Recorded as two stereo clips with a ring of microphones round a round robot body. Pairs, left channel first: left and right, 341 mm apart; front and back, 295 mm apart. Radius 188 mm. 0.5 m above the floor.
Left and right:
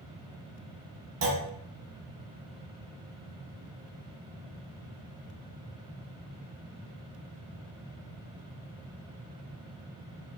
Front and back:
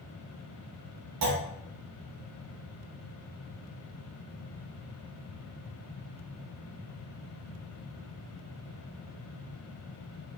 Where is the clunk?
145° right, 0.5 m.